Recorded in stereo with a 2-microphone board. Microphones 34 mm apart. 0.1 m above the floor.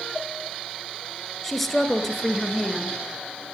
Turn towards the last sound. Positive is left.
turn(degrees=5)  # may be behind; listen again after turning